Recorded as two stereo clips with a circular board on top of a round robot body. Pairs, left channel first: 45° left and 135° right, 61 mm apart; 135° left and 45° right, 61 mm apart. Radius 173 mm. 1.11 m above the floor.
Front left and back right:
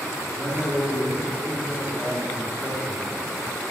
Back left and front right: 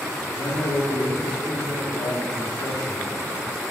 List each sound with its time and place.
0.3 s a man speaking: 120° left, 3 m